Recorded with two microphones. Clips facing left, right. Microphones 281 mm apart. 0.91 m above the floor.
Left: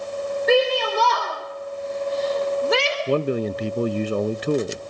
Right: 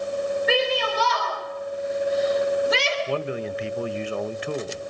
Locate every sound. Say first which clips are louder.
0.5 s a shout: left 9 dB; 50° left (ahead or behind), 4 m; by 3.0 s 65° left (ahead or behind), 3.5 m
3.1 s a man speaking: left 6 dB; 50° left (ahead or behind), 0.6 m